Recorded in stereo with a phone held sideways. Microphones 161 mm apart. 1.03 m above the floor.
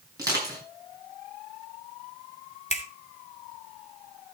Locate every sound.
0.2 s crushing: 25° right (ahead or behind), 7 m
2.7 s a finger snap: 45° left (ahead or behind), 2.0 m